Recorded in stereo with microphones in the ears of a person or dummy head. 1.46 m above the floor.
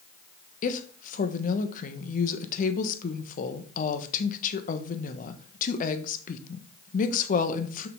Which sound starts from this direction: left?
A woman speaking, at 0.6 s.